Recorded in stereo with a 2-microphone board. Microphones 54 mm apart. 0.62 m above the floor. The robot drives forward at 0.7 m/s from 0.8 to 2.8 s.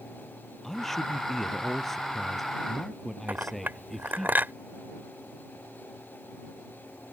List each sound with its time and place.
0.6 s a man speaking: 5° left (ahead or behind)
3.3 s a clink: 40° right (ahead or behind)